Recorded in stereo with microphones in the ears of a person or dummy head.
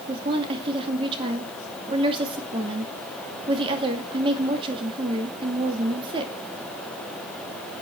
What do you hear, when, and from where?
0.1 s a woman speaking: 30° right (ahead or behind), 2.5 m